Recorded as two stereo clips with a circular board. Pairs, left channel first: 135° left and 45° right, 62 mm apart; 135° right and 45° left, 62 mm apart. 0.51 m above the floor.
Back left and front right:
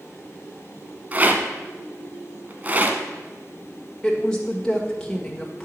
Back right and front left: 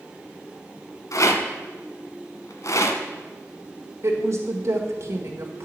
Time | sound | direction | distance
1.1 | a rattle | 110° right | 1.1 m
4.0 | a woman speaking | 60° left | 1.5 m